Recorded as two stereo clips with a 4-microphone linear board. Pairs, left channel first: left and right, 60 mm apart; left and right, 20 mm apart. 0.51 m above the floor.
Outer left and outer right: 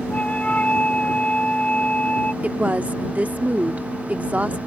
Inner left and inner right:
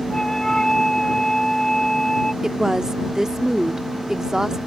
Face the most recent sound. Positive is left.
turn(degrees=-25)  # may be behind; listen again after turning